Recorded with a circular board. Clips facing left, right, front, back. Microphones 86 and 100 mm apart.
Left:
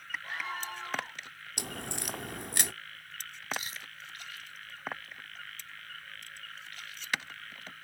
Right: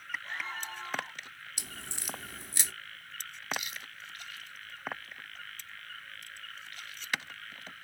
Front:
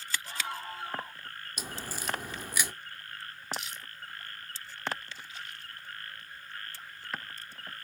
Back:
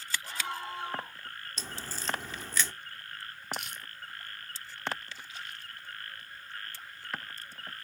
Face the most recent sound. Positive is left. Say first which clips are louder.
# even, even
turn(degrees=145)